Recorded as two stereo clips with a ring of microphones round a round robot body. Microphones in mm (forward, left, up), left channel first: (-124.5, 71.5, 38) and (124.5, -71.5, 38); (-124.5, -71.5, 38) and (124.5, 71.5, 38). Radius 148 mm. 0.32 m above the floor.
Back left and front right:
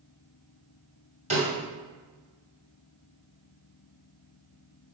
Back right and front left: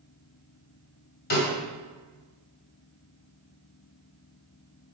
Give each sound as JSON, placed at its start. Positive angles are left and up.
{"t": 1.3, "sound": "a snare drum", "azimuth_deg": -95, "distance_m": 2.5}